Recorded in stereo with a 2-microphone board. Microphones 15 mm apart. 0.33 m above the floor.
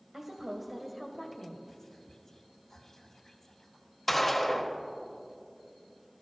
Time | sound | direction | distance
0.1 | a woman speaking | 40° right (ahead or behind) | 1.6 m
1.7 | whispering | 30° left (ahead or behind) | 1.9 m
4.1 | a gunshot | 10° left (ahead or behind) | 1.5 m